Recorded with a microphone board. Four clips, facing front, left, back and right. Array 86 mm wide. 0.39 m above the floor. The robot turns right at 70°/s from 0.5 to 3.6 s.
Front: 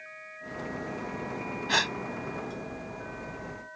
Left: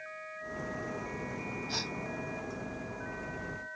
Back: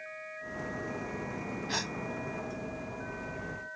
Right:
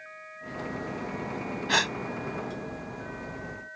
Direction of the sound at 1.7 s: 65° right.